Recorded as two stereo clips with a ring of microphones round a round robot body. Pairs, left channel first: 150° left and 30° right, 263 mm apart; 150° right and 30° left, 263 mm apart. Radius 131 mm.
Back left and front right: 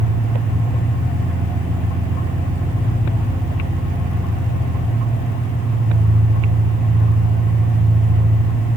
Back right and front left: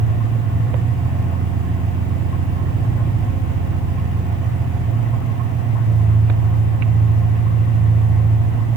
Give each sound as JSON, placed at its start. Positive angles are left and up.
{"t": 0.0, "sound": "an engine running", "azimuth_deg": 35, "distance_m": 3.5}